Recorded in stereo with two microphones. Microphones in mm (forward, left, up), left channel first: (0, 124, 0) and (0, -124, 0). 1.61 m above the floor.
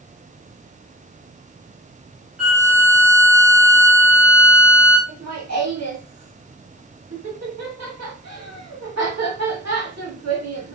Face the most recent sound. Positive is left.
turn(degrees=-85)